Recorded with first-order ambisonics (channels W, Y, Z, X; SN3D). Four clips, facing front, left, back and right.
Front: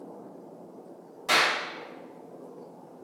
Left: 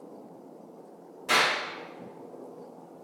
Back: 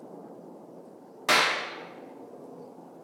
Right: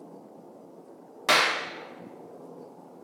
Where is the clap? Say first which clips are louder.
Right 2 dB, even; 125° right, 0.6 m.